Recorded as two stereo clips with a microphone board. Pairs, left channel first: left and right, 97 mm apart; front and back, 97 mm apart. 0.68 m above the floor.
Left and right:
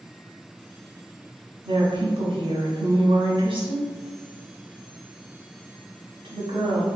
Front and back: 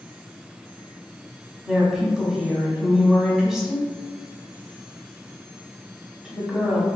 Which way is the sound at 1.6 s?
95° right.